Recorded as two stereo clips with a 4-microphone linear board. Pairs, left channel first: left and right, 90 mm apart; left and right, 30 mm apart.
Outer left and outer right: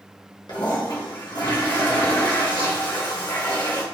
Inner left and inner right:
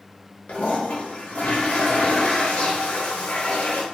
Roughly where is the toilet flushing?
Left.